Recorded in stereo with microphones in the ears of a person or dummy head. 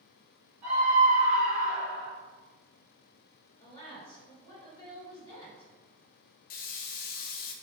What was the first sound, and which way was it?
A scream, 15° right (ahead or behind).